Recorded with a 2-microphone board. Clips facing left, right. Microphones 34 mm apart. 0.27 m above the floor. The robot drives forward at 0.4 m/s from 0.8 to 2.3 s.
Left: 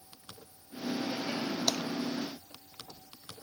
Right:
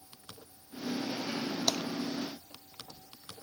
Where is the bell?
No bell in this recording.